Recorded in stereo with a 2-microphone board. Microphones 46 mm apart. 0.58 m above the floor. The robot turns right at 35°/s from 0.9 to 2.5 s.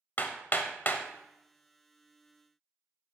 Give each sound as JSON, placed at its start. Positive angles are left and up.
{"t": 0.2, "sound": "hammering", "side_deg": 45, "distance_m": 0.9}